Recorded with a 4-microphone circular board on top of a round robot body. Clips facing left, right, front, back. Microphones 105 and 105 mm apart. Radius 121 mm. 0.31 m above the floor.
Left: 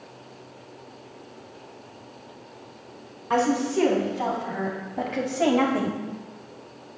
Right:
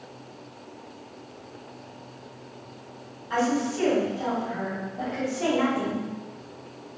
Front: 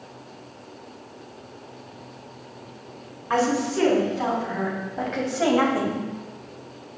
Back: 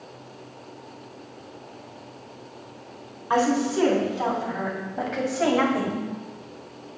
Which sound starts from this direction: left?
A woman speaking, at 3.3 s.